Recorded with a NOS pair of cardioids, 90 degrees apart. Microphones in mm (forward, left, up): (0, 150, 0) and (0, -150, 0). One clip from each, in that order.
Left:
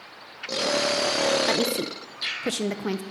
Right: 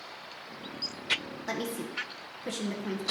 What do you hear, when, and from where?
1.5 s a woman speaking: 45° left, 0.7 m